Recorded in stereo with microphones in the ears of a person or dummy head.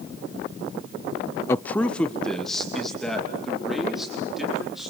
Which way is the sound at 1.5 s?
15° left (ahead or behind).